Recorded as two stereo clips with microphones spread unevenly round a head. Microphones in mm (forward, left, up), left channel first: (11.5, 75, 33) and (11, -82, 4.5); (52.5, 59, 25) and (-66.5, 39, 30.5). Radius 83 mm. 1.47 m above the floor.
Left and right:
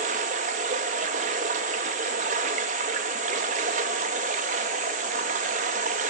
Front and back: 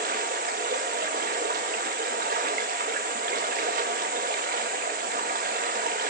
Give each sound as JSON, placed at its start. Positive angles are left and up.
{"t": 0.0, "sound": "running water", "azimuth_deg": -135, "distance_m": 2.0}